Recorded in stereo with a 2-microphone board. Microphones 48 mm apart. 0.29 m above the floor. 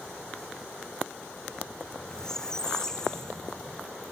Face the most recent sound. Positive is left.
turn(degrees=10)  # may be behind; listen again after turning